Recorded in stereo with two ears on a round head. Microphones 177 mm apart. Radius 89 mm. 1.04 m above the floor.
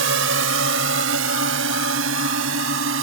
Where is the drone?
70° right (ahead or behind).